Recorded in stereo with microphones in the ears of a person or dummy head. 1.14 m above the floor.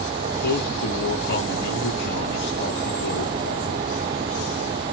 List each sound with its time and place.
0.3 s a man speaking: 55° left (ahead or behind), 1.0 m